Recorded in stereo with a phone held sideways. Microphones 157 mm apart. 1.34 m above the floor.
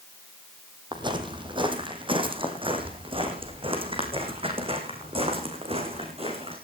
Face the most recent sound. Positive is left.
turn(degrees=-40)  # may be behind; listen again after turning